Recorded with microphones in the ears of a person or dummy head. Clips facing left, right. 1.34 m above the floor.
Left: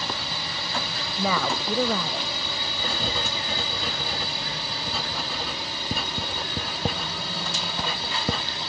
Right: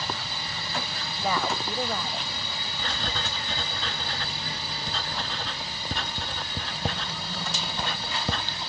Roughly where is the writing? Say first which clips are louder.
Left 3 dB; left.